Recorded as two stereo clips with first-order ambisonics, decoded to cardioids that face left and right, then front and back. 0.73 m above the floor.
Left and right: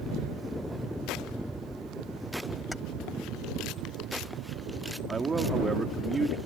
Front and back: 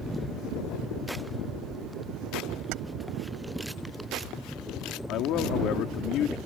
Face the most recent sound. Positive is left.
turn(degrees=-20)